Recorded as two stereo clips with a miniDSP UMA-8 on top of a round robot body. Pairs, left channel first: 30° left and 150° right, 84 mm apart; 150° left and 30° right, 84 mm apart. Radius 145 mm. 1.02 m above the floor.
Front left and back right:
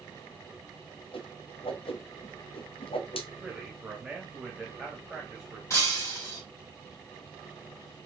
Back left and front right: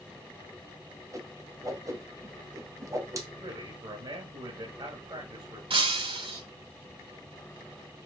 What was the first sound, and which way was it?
A whoosh, 25° left.